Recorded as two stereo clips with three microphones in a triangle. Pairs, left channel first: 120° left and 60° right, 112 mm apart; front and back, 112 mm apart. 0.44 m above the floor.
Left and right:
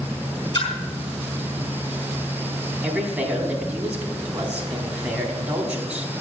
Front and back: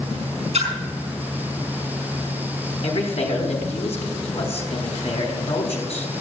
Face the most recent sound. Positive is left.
turn(degrees=15)